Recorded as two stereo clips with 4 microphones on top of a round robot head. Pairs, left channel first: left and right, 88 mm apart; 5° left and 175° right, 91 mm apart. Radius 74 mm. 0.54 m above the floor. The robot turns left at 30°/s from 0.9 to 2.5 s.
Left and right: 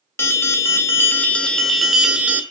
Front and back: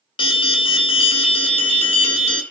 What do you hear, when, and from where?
0.2 s an alarm: 30° left, 0.9 m; by 2.4 s 15° right, 0.9 m